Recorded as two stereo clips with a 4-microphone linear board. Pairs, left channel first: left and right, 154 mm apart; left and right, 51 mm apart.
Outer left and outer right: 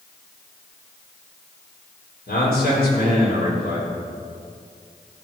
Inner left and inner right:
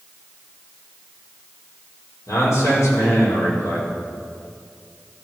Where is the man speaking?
85° left, 5 m.